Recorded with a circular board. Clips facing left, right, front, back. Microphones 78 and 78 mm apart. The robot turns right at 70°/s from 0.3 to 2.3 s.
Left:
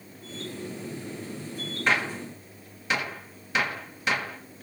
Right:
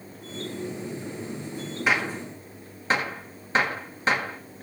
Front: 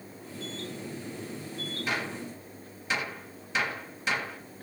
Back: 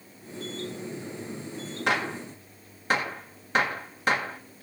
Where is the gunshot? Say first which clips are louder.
Right 1 dB, back 7 dB; 170° right, 1.4 m; by 4.4 s 140° right, 1.4 m.